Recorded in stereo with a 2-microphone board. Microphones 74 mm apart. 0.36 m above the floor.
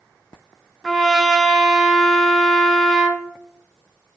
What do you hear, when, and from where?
0.8 s a trumpet: centre (ahead or behind), 0.6 m